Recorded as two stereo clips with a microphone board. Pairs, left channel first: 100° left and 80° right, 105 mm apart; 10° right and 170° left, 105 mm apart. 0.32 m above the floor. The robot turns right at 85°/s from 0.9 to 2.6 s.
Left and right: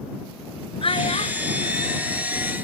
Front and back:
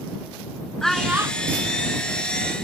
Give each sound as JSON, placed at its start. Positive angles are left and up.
{"t": 0.8, "sound": "a child speaking", "azimuth_deg": 75}